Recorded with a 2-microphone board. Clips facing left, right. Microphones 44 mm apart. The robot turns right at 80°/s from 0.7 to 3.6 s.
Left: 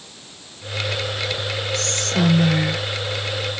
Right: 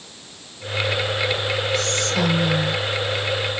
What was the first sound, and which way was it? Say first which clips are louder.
Whispering: right 1 dB; 15° right.